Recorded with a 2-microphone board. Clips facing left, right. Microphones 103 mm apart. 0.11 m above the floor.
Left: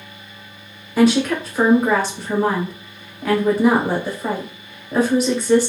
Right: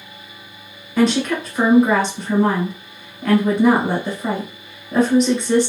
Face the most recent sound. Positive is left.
turn(degrees=5)  # may be behind; listen again after turning